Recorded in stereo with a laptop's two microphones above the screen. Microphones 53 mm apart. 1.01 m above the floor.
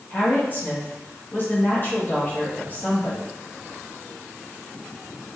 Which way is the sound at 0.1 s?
35° left (ahead or behind).